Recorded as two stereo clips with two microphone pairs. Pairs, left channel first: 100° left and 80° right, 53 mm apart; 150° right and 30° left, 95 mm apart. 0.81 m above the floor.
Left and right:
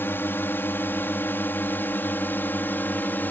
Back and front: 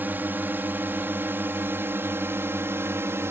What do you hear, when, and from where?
0.0 s a drone: 90° left; by 3.3 s 75° left